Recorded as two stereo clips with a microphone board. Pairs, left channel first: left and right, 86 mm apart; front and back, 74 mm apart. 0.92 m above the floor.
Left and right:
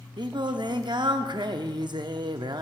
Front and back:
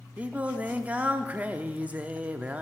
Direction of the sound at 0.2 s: 110° right.